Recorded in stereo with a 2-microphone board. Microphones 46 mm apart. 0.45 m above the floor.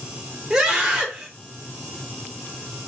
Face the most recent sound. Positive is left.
turn(degrees=-15)  # may be behind; listen again after turning